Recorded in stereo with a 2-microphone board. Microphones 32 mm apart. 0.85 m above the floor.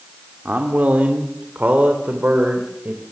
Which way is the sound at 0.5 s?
60° right (ahead or behind).